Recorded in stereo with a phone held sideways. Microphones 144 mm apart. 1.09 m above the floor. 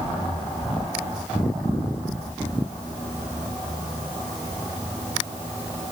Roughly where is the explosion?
No explosion in this recording.